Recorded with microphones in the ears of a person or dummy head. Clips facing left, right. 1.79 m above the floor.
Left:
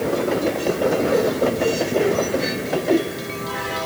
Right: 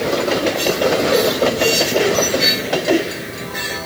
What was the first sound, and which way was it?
Only background noise.